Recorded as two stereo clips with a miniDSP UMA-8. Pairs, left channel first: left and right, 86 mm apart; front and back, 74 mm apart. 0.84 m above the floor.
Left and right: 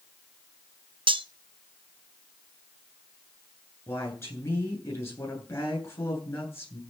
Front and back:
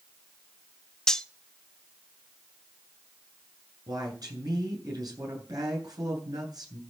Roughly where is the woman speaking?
Behind left.